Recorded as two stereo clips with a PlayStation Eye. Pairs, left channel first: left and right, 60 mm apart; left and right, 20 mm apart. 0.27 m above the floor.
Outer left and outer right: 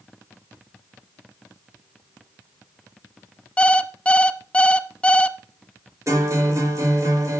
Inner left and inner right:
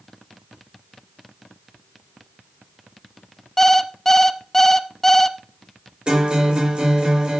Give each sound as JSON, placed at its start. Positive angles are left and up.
{"t": 3.6, "sound": "an alarm clock", "side_deg": 20, "distance_m": 0.7}
{"t": 6.1, "sound": "a guitar", "side_deg": -60, "distance_m": 5.0}